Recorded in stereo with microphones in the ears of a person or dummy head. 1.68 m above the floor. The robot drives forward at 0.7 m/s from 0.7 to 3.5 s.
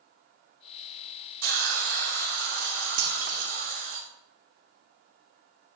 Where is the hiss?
65° right (ahead or behind), 2.5 m; by 4.0 s 45° right (ahead or behind), 3 m.